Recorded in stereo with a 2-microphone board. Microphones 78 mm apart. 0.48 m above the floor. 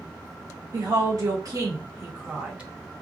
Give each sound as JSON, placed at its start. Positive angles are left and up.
{"t": 0.7, "sound": "a woman speaking", "side_deg": -55, "distance_m": 1.7}